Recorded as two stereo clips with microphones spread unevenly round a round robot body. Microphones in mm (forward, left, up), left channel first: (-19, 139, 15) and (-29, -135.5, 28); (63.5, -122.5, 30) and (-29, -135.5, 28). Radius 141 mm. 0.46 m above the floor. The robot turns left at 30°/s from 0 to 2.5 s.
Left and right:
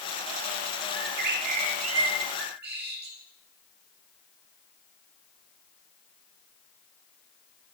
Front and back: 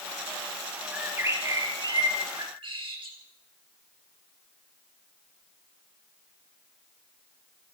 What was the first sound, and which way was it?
A bird, 100° right.